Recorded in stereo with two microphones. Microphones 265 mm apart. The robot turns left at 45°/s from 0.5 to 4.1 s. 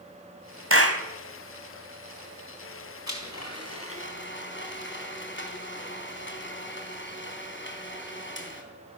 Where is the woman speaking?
No woman speaking in this recording.